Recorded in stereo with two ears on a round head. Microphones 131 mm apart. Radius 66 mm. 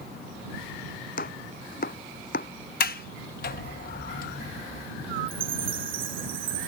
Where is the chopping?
65° left (ahead or behind).